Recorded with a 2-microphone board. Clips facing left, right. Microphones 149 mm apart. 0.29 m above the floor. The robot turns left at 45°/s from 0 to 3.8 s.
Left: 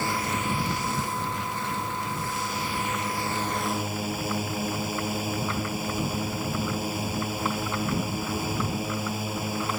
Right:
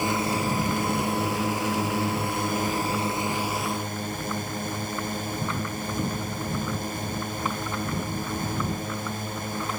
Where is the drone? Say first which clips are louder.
Right 3 dB; 15° right; by 9.8 s 175° left.